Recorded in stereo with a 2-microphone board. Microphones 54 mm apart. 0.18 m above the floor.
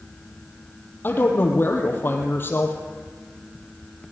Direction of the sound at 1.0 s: 45° left (ahead or behind).